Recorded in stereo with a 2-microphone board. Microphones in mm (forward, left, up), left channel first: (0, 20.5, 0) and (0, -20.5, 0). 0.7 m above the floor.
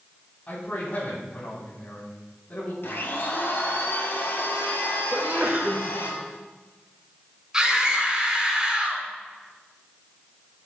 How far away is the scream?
About 6 m.